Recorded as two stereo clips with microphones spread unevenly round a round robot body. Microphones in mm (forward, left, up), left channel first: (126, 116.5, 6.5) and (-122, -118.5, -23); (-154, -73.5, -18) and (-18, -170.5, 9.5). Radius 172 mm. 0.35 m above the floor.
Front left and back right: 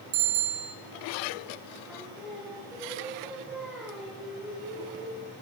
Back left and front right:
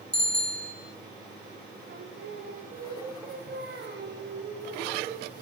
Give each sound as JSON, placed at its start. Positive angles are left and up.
{"t": 0.1, "sound": "a bicycle bell", "azimuth_deg": -130, "distance_m": 5.5}
{"t": 1.9, "sound": "singing", "azimuth_deg": -45, "distance_m": 6.0}